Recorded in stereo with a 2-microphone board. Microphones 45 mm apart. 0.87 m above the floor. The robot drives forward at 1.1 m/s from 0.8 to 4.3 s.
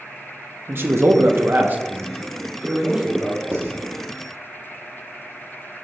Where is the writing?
50° right (ahead or behind), 1.1 m; by 3.8 s 65° right (ahead or behind), 0.9 m.